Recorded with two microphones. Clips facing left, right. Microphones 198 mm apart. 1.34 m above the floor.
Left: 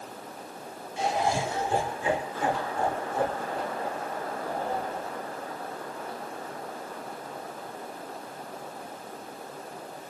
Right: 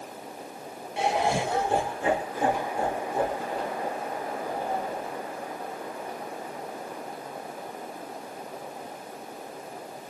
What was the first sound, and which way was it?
Laughter, 70° right (ahead or behind).